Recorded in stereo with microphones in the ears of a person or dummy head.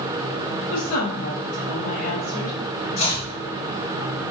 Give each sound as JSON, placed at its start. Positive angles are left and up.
{"t": 0.7, "sound": "a woman speaking", "side_deg": 60, "distance_m": 1.8}
{"t": 3.0, "sound": "chopping", "side_deg": 70, "distance_m": 1.6}